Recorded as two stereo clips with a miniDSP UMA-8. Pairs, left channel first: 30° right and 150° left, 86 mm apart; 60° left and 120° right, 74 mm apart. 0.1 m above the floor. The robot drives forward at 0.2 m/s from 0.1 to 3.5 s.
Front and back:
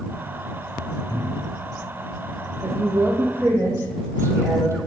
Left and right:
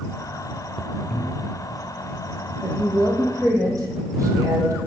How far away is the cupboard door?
About 1.5 m.